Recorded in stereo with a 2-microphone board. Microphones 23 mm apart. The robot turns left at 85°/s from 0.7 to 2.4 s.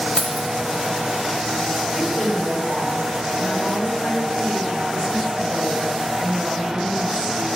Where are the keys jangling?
60° left (ahead or behind), 1.0 m.